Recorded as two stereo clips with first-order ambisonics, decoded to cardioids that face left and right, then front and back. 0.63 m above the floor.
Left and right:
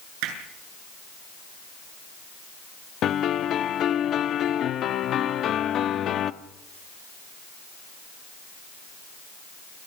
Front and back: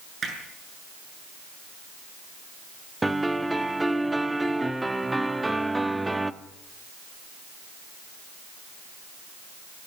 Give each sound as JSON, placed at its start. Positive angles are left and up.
{"t": 0.2, "sound": "hammering", "azimuth_deg": -110, "distance_m": 7.5}
{"t": 3.0, "sound": "a piano", "azimuth_deg": 100, "distance_m": 0.8}